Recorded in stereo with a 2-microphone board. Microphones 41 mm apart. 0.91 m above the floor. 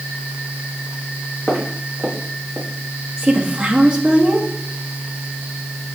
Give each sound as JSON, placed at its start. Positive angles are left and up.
{"t": 1.5, "sound": "footsteps", "side_deg": -20, "distance_m": 4.0}
{"t": 3.2, "sound": "a woman speaking", "side_deg": -30, "distance_m": 1.7}